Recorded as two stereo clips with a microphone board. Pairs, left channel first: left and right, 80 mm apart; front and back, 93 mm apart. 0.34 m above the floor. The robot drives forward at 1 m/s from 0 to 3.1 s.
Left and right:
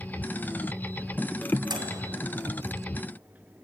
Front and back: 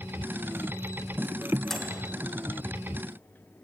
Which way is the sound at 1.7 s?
85° right.